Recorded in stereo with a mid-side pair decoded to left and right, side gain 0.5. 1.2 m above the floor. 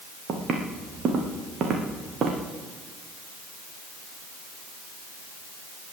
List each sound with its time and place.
0.3 s footsteps: 55° right, 4 m